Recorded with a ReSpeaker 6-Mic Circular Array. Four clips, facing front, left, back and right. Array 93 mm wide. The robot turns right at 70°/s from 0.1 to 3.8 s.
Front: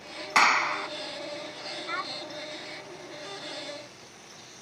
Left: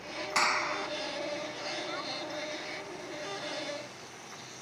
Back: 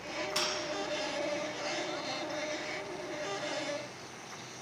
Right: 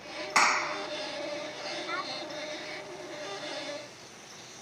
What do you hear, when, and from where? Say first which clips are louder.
0.3 s a clap: right 3 dB, front 15 dB; 20° right; by 0.9 s 15° left
1.9 s a child speaking: right 2 dB, front 3 dB; 30° right; by 2.1 s 15° right